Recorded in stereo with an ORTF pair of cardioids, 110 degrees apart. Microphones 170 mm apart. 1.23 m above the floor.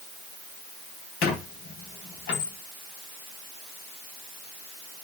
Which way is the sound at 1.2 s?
70° left.